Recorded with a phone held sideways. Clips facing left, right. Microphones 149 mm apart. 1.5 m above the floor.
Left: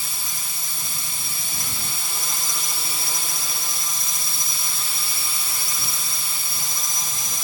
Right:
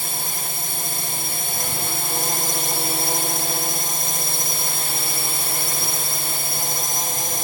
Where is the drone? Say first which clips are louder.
Right 7 dB; 55° right (ahead or behind).